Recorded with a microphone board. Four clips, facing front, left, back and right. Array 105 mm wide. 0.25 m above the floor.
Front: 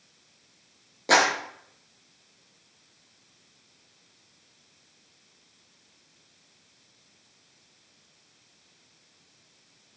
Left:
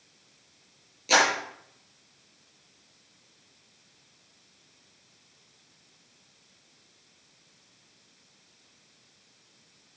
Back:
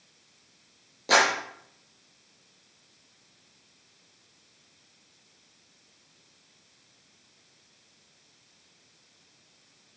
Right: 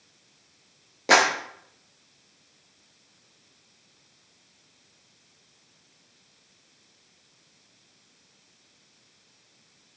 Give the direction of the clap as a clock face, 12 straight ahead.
3 o'clock.